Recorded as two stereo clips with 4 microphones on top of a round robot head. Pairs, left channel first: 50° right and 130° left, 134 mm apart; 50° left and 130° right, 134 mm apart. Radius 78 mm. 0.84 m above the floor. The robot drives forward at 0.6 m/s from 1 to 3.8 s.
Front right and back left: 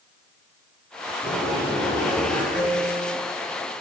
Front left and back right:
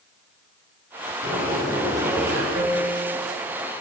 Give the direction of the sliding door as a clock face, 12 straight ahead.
4 o'clock.